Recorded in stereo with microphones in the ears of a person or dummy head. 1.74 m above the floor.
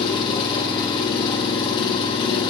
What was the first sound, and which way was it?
An engine running, 25° left (ahead or behind).